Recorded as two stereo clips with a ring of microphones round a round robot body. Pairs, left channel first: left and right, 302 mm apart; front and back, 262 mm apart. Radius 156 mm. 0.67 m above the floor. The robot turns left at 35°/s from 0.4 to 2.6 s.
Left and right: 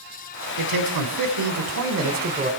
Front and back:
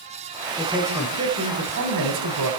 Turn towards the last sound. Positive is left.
turn(degrees=-160)